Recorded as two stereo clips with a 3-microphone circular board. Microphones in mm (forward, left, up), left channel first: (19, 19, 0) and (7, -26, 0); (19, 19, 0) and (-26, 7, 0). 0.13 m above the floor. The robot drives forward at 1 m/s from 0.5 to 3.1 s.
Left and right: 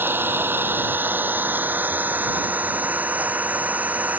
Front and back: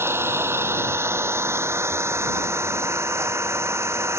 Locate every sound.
0.0 s an engine running: 145° right; by 4.2 s 160° right